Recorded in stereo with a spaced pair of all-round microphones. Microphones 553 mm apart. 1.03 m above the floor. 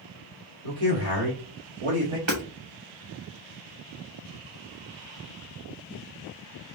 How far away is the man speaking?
About 2 m.